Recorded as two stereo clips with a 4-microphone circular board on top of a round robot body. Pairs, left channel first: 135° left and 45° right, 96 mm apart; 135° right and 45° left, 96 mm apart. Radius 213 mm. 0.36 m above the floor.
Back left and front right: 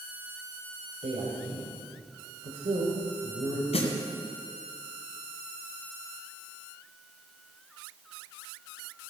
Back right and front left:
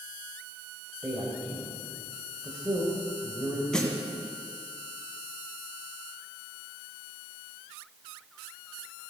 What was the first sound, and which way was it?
A man speaking, 50° right.